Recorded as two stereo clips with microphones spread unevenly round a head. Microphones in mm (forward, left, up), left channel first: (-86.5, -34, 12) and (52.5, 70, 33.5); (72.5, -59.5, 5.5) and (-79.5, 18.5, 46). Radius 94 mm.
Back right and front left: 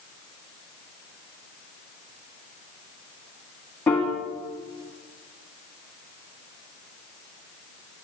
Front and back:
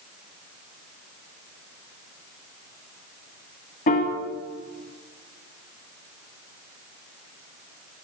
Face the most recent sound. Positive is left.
turn(degrees=-60)